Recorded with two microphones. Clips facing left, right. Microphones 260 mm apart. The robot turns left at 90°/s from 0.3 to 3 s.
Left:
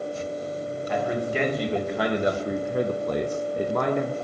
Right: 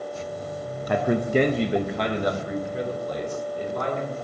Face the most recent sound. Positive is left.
turn(degrees=85)